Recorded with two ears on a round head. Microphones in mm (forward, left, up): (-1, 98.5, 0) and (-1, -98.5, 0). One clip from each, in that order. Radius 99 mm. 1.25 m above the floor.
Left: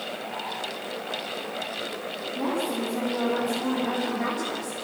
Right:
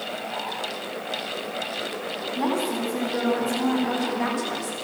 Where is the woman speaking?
25° right (ahead or behind), 8.5 m; by 4.8 s 20° right (ahead or behind), 6.5 m.